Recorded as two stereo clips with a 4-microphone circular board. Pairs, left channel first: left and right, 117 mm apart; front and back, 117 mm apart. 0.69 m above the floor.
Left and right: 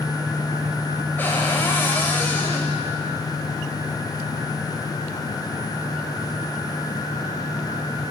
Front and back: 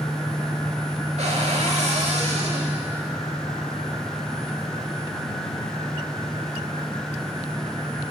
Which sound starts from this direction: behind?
A cupboard door, at 1.2 s.